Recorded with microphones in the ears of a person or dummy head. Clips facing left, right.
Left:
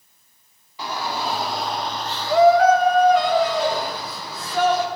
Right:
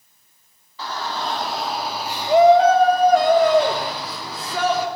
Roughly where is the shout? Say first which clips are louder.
Left 1 dB; centre.